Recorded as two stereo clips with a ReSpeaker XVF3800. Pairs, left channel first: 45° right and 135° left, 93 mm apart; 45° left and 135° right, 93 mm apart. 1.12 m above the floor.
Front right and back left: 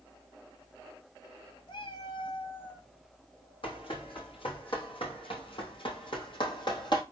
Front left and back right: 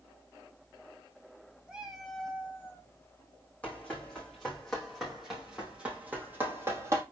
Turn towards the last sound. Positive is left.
turn(degrees=-75)